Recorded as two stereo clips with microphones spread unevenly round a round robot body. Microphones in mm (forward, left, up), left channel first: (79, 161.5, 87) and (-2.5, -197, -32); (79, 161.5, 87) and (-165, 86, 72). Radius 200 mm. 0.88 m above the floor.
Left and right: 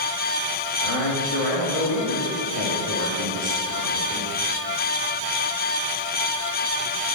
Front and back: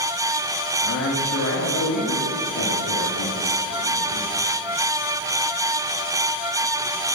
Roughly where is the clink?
I don't hear a clink.